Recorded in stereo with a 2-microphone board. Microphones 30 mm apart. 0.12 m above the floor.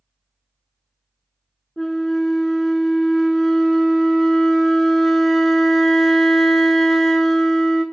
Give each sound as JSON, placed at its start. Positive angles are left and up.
{"t": 1.8, "sound": "a flute", "side_deg": 5, "distance_m": 0.6}